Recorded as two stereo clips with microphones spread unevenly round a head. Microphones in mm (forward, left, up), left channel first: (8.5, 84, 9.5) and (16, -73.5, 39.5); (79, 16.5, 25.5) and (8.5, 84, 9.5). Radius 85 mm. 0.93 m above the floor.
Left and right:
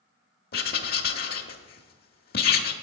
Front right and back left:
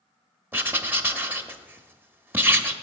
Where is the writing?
65° left, 0.9 m.